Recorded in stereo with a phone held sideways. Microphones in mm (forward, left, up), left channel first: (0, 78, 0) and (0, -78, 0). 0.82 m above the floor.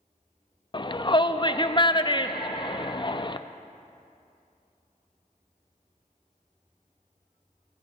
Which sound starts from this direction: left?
A shout, at 0.7 s.